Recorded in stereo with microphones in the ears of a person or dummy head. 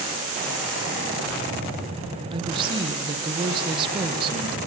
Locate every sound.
2.3 s a woman speaking: 30° right (ahead or behind), 1.6 m